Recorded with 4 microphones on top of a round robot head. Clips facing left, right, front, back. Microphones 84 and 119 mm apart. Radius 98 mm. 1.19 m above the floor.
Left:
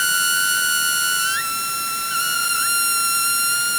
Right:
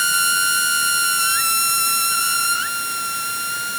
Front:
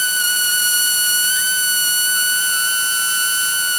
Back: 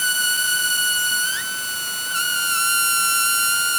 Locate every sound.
Only background noise.